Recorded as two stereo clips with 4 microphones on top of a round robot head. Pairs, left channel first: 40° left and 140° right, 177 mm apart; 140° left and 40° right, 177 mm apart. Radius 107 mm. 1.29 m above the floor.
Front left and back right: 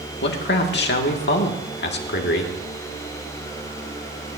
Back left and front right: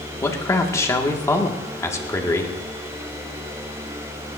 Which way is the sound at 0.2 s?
65° left.